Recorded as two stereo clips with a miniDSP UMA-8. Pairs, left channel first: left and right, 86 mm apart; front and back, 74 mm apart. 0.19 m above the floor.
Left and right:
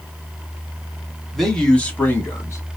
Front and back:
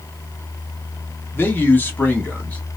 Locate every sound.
1.3 s a man speaking: straight ahead, 1.1 m; by 2.6 s 65° left, 1.2 m